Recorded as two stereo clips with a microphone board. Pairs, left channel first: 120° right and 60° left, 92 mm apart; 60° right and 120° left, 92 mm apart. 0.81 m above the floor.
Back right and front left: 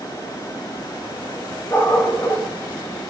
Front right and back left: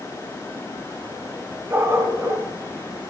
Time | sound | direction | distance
1.7 | a dog barking | 175° right | 2 m